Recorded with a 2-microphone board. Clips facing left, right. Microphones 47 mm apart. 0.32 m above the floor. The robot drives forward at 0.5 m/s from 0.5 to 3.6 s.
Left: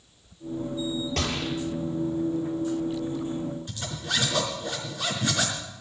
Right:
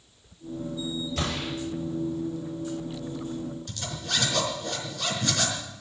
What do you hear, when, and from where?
1.2 s a gunshot: 60° left (ahead or behind), 7 m; by 1.5 s 55° left (ahead or behind), 7 m
3.7 s a zipper: 20° left (ahead or behind), 4.5 m